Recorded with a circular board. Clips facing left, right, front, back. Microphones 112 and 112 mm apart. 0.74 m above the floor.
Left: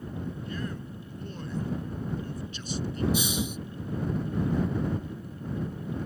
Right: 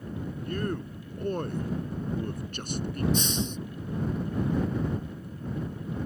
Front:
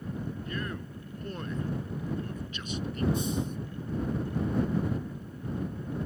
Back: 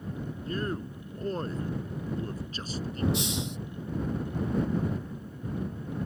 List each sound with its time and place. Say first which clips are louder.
0.5 s a man speaking: right 4 dB, back 4 dB; 125° right
3.1 s a hiss: even, front 1 dB; 170° left